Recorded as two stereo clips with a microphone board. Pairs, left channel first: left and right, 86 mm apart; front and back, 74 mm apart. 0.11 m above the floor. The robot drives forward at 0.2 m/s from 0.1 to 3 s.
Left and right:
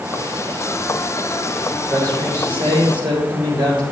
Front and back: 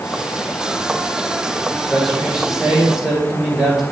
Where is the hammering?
I don't hear hammering.